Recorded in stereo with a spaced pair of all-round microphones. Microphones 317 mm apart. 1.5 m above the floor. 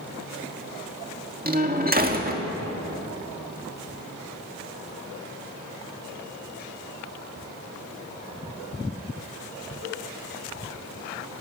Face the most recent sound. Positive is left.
turn(degrees=-30)  # may be behind; listen again after turning